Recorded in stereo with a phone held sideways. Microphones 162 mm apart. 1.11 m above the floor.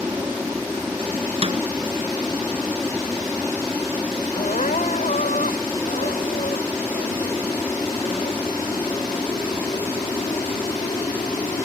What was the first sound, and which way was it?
An aircraft, 10° right (ahead or behind).